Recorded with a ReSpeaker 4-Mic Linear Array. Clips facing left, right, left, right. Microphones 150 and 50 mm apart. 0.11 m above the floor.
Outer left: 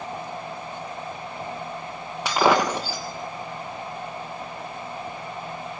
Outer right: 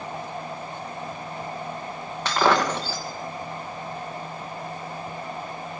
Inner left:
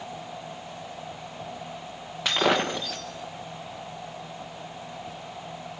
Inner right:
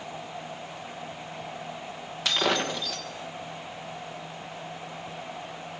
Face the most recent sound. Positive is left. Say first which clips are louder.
# outer left 1 dB, inner left 3 dB
turn(degrees=10)  # may be behind; listen again after turning